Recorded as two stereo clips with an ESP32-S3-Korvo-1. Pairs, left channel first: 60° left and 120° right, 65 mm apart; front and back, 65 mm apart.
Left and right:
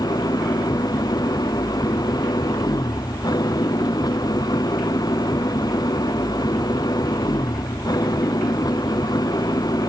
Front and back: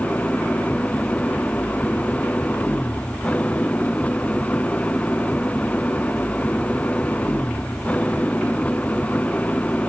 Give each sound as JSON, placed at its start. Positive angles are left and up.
{"t": 0.0, "sound": "an engine running", "azimuth_deg": 70}